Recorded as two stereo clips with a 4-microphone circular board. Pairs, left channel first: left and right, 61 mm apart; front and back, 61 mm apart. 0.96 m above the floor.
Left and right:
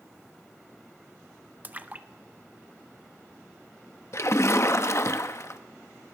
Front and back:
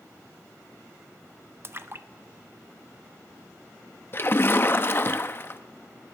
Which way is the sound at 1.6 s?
150° right.